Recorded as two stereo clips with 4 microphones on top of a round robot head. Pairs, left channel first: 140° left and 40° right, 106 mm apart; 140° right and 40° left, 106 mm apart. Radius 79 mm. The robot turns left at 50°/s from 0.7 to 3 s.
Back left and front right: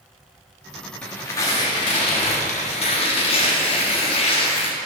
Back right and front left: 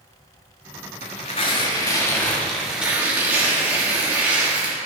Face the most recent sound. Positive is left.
turn(degrees=115)